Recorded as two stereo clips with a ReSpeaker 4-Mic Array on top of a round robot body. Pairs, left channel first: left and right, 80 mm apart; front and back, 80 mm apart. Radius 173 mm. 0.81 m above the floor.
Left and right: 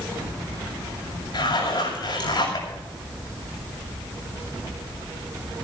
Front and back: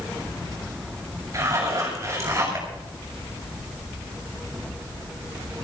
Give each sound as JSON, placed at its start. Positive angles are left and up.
{"t": 1.3, "sound": "a zipper", "azimuth_deg": 120, "distance_m": 7.5}